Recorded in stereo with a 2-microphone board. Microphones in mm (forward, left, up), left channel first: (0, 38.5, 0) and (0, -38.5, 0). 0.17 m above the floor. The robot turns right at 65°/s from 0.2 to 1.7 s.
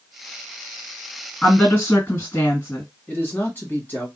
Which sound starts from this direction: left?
A man speaking, at 3.1 s.